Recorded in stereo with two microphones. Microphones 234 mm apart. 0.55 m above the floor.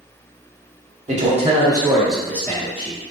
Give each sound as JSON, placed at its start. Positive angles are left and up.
{"t": 1.1, "sound": "a man speaking", "side_deg": -30, "distance_m": 1.0}